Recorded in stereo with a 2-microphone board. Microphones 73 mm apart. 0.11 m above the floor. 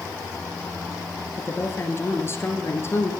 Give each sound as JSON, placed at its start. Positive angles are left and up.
{"t": 1.4, "sound": "a woman speaking", "side_deg": 35, "distance_m": 2.0}